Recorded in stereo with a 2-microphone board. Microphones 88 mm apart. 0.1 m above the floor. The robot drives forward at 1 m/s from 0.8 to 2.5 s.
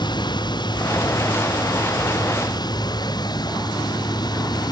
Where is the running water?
55° left (ahead or behind).